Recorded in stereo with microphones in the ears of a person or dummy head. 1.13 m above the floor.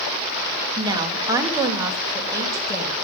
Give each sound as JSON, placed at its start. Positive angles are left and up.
{"t": 0.8, "sound": "a woman speaking", "side_deg": -20, "distance_m": 2.5}